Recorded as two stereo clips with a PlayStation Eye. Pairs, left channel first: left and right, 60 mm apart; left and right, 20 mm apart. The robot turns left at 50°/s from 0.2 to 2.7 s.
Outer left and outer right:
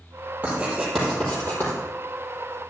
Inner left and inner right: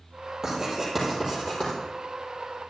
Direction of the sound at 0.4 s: 25° right (ahead or behind).